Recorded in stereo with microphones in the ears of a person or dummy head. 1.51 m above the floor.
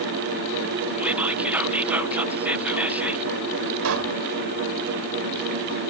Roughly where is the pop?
Right.